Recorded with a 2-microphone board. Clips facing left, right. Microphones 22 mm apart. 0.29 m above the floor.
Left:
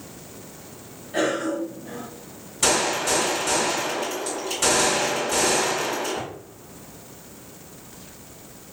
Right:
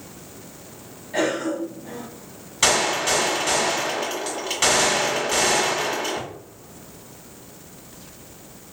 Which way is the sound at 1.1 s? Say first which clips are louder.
Even; 45° right (ahead or behind).